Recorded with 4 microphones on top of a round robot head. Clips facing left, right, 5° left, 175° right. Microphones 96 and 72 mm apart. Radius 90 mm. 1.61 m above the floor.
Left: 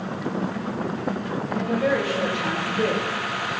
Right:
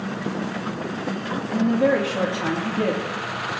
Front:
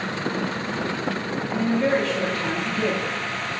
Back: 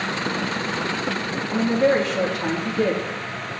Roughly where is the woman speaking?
Right.